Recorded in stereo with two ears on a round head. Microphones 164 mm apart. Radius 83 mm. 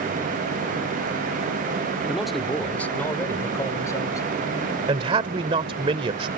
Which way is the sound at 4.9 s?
30° right (ahead or behind).